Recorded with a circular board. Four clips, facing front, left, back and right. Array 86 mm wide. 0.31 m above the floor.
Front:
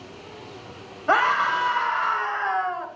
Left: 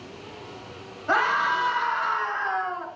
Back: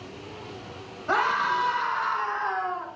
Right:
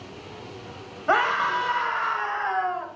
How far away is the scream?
About 1.7 m.